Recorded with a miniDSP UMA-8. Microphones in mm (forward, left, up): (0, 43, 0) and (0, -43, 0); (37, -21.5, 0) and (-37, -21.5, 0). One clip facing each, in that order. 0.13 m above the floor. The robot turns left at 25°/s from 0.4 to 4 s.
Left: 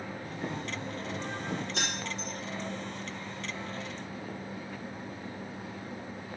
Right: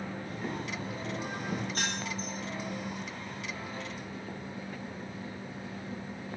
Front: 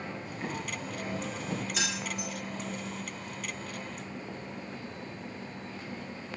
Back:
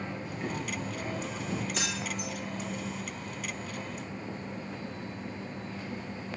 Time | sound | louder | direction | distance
0.2 | boiling | left 2 dB, back 1 dB | 90° left | 6 m
1.7 | keys jangling | even, even | 90° left | 5 m